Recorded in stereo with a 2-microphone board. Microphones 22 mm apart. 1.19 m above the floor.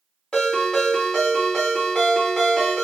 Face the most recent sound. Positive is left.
turn(degrees=40)  # may be behind; listen again after turning